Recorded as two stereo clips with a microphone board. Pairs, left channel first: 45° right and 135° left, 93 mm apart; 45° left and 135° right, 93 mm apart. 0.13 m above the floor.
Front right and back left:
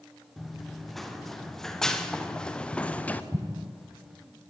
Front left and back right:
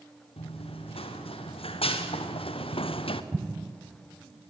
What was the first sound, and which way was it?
Running footsteps, 45° left.